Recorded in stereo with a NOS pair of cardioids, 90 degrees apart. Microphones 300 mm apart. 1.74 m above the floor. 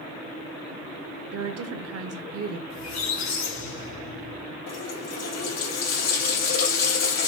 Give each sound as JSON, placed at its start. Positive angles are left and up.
{"t": 1.3, "sound": "a woman speaking", "azimuth_deg": -55, "distance_m": 0.8}
{"t": 2.7, "sound": "a squeak", "azimuth_deg": 70, "distance_m": 2.0}
{"t": 4.7, "sound": "a running tap", "azimuth_deg": 60, "distance_m": 2.5}